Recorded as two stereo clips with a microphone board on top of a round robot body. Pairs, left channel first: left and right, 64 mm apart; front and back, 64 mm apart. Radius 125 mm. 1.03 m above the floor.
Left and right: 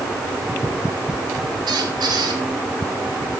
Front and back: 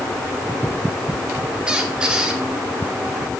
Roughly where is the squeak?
Right.